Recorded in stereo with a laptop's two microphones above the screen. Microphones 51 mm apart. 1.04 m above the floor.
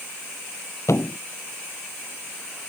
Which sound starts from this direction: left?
A thud, at 0.9 s.